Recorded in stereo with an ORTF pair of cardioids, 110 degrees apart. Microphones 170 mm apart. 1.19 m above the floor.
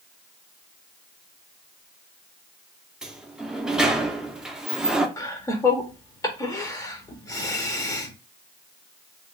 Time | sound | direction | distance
3.0 | a sliding door | 5° right | 0.5 m
5.2 | laughter | 20° left | 0.7 m